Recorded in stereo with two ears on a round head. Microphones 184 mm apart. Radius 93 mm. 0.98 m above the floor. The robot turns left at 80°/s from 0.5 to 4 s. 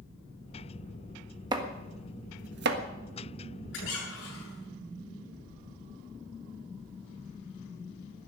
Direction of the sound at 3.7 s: 65° left (ahead or behind).